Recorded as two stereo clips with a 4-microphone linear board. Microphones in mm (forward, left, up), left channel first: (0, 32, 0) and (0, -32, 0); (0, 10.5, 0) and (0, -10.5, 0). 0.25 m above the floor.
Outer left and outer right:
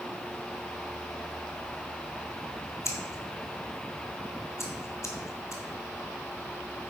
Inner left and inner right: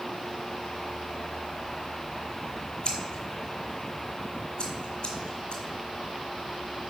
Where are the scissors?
50° left (ahead or behind), 1.3 m.